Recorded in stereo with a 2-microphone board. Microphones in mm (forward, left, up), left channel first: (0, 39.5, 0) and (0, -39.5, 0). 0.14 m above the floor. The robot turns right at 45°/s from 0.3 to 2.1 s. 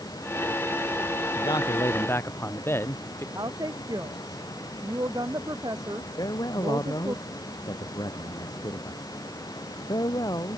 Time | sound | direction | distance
1.4 | a man speaking | 115° left | ?
3.4 | a woman speaking | 55° right (ahead or behind) | ?
6.2 | a man speaking | 55° left (ahead or behind) | ?